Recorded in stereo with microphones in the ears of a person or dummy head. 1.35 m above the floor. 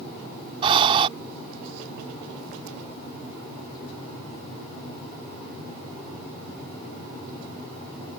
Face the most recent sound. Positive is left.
turn(degrees=-30)  # may be behind; listen again after turning